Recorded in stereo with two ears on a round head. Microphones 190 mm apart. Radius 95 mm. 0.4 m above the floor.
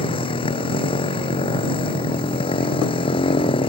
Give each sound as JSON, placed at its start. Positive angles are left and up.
{"t": 0.0, "sound": "a motorcycle", "side_deg": 25}